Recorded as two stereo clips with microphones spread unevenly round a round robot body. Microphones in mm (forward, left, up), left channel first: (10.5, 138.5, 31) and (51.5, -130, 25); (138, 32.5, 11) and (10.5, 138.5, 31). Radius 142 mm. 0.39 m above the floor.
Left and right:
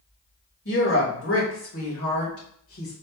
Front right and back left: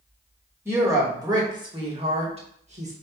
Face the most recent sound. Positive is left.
turn(degrees=105)